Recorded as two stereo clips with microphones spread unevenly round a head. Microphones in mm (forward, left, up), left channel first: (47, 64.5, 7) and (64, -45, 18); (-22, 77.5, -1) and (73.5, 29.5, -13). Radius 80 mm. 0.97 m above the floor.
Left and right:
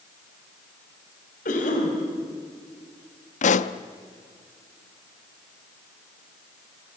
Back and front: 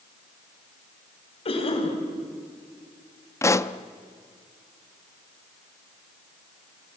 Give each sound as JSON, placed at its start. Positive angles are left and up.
{"t": 1.4, "sound": "a cough", "azimuth_deg": 120, "distance_m": 6.0}
{"t": 3.4, "sound": "a pop", "azimuth_deg": 90, "distance_m": 0.9}